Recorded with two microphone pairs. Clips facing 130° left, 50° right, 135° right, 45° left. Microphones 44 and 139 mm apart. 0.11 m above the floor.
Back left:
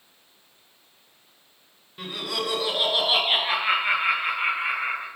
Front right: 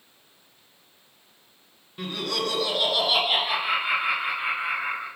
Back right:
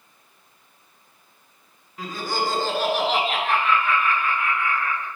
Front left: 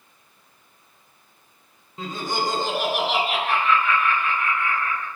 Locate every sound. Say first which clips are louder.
2.0 s laughter: front right 1 dB, even; 45° left, 1.4 m; by 5.1 s 150° left, 2.5 m